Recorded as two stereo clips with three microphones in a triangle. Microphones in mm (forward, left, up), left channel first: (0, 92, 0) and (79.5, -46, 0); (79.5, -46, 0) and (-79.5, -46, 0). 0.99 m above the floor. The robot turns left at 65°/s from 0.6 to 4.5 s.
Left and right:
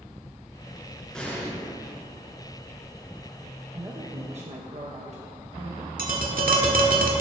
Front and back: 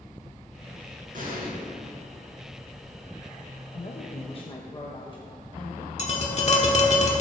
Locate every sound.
1.1 s an explosion: 155° right, 4 m; by 1.5 s straight behind, 4 m
3.7 s a woman speaking: straight ahead, 1.2 m; by 5.9 s 50° right, 1.2 m
6.0 s tapping: 40° right, 1.7 m